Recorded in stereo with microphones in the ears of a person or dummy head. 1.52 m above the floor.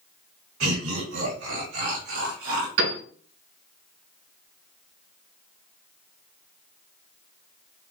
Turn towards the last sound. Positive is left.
turn(degrees=-70)  # may be behind; listen again after turning